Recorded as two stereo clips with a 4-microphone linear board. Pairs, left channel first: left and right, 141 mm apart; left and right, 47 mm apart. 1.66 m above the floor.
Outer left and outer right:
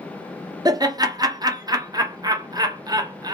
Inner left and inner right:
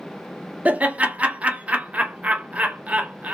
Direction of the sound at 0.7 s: 25° right (ahead or behind).